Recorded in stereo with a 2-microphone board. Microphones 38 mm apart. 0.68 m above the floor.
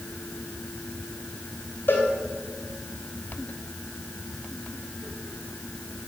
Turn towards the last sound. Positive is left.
turn(degrees=70)  # may be behind; listen again after turning